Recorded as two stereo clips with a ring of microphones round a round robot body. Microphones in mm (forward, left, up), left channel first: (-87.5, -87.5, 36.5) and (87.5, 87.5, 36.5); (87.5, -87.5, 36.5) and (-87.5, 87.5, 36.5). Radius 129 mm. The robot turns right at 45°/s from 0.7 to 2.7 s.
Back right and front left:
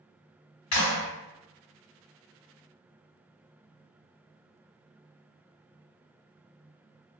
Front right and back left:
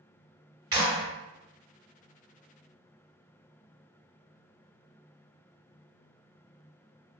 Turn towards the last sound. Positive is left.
turn(degrees=-65)